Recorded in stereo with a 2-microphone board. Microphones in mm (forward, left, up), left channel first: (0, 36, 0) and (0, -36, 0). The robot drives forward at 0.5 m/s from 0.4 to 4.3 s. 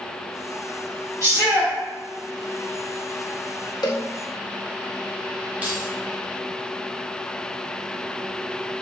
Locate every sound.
1.2 s a shout: 45° right (ahead or behind), 1.6 m; by 1.7 s 40° right (ahead or behind), 1.7 m
3.8 s a cowbell: 65° left (ahead or behind), 0.7 m; by 4.0 s 70° left (ahead or behind), 0.7 m
5.6 s keys jangling: 25° right (ahead or behind), 1.1 m